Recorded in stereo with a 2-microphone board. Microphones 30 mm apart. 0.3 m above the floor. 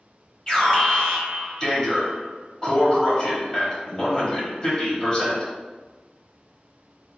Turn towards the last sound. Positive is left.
turn(degrees=25)  # may be behind; listen again after turning